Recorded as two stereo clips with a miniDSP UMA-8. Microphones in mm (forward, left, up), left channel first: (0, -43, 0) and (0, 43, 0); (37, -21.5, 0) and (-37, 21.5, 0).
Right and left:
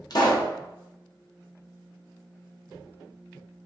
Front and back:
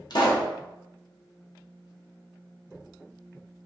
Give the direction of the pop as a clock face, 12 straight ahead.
2 o'clock.